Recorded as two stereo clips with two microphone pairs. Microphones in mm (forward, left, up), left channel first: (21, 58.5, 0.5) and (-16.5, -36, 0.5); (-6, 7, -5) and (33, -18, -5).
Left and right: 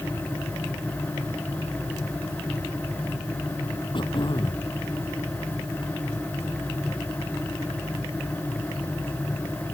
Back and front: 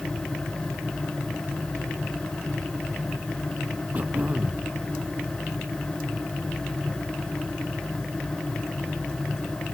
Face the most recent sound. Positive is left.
turn(degrees=25)